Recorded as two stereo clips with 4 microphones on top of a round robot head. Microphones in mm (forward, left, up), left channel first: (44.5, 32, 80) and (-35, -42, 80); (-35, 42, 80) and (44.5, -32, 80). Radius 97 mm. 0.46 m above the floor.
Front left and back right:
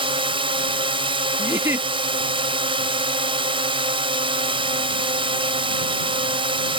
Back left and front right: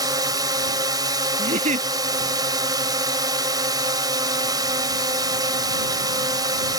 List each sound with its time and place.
0.0 s a drone: 95° right
1.4 s a giggle: 65° right